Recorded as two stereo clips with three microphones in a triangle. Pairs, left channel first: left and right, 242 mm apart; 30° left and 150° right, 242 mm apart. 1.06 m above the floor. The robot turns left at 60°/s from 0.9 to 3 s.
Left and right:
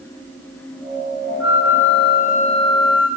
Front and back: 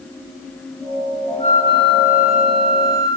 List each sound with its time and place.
1.4 s a flute: 90° left, 2 m; by 3.1 s 5° right, 2 m